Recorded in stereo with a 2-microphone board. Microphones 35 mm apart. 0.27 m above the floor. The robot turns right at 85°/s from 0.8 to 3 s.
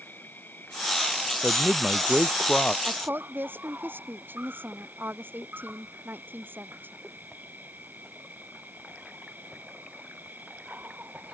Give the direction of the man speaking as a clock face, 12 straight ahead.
2 o'clock.